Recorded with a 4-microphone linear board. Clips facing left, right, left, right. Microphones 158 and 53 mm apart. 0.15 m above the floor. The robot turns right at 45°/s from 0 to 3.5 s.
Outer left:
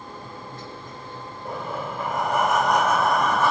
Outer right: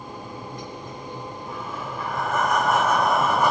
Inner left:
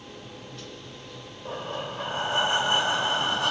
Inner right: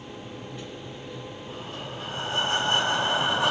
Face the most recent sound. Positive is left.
turn(degrees=-165)